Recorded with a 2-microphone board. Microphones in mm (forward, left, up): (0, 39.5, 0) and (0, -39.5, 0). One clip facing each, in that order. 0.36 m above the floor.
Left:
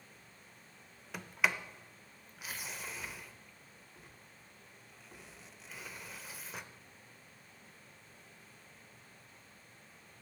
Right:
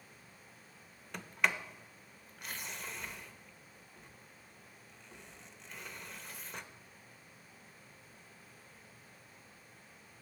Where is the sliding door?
5° left (ahead or behind), 0.5 m.